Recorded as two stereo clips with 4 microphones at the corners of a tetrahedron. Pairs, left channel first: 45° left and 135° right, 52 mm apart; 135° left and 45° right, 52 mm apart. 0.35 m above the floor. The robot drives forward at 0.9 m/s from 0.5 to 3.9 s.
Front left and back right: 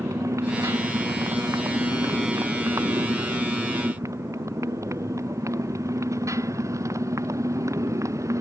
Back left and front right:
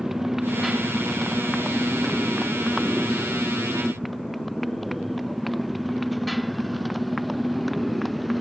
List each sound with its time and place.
0.0 s a motorcycle: 130° right; by 8.4 s 135° right